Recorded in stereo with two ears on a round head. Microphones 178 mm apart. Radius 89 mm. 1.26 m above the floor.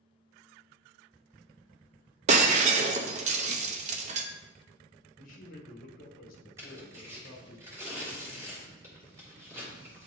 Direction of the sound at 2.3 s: 40° right (ahead or behind).